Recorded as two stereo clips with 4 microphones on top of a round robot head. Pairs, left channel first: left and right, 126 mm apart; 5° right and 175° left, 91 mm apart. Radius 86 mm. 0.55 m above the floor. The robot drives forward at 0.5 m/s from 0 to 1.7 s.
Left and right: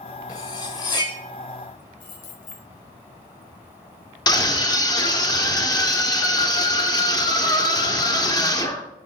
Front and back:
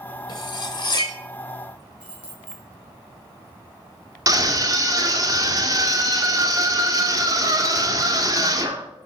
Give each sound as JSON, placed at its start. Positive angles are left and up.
{"t": 0.3, "sound": "cutlery clinking", "azimuth_deg": 25, "distance_m": 1.7}
{"t": 2.0, "sound": "keys jangling", "azimuth_deg": 95, "distance_m": 3.5}
{"t": 4.3, "sound": "a scream", "azimuth_deg": 140, "distance_m": 1.7}